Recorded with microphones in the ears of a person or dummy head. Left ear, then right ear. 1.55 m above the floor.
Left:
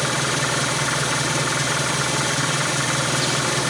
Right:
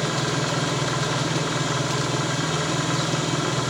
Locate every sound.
0.0 s an engine running: 75° left (ahead or behind), 1.1 m